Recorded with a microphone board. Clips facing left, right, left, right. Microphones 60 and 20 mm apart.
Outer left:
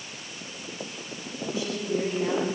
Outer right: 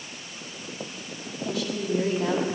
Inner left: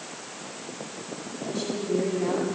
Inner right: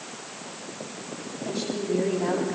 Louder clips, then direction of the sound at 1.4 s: Outer right 1 dB, even; 70° right (ahead or behind).